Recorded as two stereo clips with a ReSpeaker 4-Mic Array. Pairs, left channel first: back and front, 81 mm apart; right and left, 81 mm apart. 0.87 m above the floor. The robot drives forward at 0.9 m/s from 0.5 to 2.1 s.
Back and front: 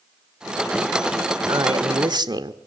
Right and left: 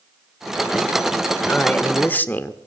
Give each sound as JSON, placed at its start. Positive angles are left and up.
{"t": 1.5, "sound": "a man speaking", "azimuth_deg": -20, "distance_m": 2.5}